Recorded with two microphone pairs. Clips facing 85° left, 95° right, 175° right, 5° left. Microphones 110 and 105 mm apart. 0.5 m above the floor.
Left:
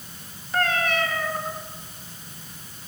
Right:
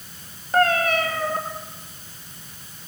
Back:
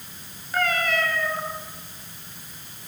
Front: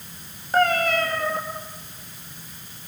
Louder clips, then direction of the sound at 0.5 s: Right 5 dB, front 5 dB; 45° right.